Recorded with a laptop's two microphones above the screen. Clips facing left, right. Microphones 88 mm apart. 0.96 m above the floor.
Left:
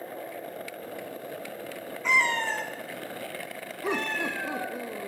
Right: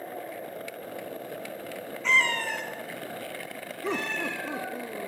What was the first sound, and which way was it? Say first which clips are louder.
A cat meowing: left 1 dB; 10° left (ahead or behind).